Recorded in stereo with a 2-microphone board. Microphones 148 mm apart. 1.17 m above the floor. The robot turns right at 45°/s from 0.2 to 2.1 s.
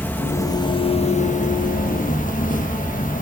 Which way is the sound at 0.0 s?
15° left.